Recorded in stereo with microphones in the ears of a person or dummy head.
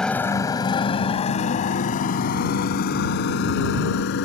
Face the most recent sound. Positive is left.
turn(degrees=65)  # may be behind; listen again after turning